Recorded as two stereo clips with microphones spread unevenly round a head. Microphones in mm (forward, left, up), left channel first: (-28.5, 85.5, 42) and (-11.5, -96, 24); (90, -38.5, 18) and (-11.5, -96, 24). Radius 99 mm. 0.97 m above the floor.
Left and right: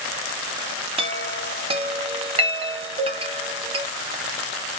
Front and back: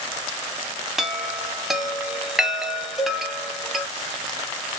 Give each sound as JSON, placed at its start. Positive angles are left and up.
{"t": 1.0, "sound": "a chime", "azimuth_deg": -60, "distance_m": 0.7}
{"t": 3.0, "sound": "a cowbell", "azimuth_deg": -70, "distance_m": 0.9}